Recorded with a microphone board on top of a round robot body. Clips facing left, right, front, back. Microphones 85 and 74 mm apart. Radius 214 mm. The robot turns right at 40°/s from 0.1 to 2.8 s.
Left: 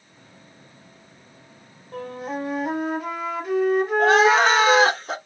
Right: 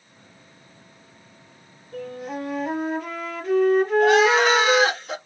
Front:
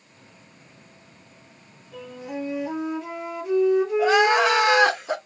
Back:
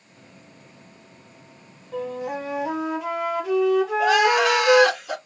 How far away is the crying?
About 1.3 m.